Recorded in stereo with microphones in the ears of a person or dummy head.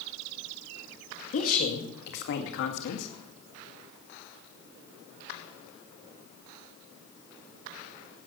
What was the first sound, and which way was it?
A woman speaking, 50° left (ahead or behind).